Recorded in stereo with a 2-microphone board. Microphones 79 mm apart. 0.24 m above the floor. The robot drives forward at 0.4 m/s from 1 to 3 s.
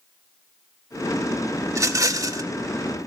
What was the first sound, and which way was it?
A rattle, 40° right (ahead or behind).